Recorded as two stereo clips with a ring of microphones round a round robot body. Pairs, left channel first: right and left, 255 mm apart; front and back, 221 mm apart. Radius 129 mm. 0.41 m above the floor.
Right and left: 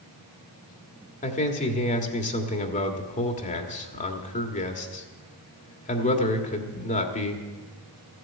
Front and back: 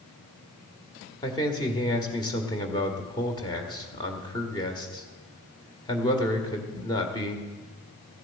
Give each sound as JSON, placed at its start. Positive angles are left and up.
{"t": 1.2, "sound": "a man speaking", "azimuth_deg": -55, "distance_m": 1.6}